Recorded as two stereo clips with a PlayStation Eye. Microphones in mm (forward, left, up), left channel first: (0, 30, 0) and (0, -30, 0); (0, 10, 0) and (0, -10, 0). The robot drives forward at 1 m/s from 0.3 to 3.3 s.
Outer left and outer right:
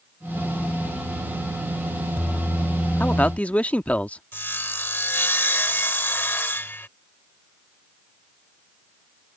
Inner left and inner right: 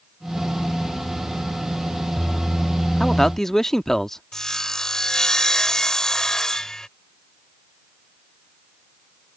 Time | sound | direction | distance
3.0 | a man speaking | 25° left (ahead or behind) | ?
4.3 | sawing | 35° left (ahead or behind) | ?